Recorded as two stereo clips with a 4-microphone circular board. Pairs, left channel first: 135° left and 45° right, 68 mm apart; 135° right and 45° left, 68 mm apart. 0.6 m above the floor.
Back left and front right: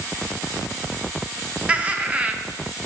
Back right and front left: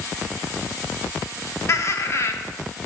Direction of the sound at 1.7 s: 110° right.